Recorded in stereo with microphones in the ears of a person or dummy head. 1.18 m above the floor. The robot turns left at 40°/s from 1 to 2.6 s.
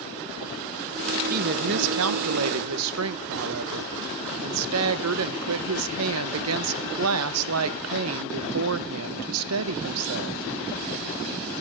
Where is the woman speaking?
40° right, 0.6 m; by 10.4 s 95° right, 0.6 m.